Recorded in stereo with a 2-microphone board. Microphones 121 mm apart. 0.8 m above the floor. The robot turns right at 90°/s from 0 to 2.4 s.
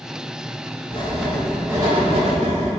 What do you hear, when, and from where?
0.9 s writing: 130° left, 3.5 m; by 2.7 s 95° right, 3.5 m